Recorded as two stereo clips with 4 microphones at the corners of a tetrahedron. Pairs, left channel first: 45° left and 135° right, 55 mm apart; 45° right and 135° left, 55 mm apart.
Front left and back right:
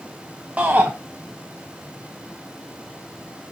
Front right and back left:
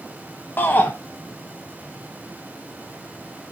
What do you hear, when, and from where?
0.6 s a shout: 80° right, 1.0 m